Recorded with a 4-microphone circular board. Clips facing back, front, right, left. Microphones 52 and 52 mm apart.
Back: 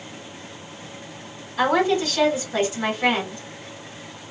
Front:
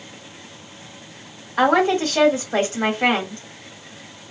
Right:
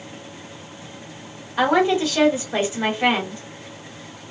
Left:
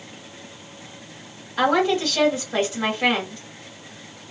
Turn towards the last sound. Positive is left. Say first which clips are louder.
# front 3 dB, right 2 dB
turn(degrees=-10)